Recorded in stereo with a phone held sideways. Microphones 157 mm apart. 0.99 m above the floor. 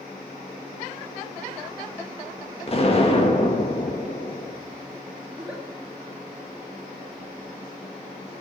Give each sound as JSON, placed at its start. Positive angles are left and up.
{"t": 2.7, "sound": "an explosion", "side_deg": 40, "distance_m": 1.7}
{"t": 5.3, "sound": "a giggle", "side_deg": -5, "distance_m": 2.5}